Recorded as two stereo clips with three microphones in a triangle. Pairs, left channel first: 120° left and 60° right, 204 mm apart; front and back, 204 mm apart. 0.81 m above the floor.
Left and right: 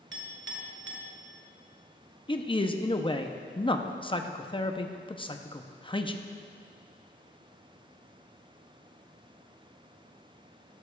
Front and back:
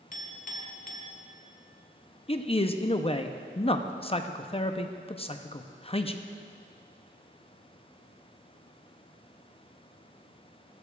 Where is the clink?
50° right, 1.3 m.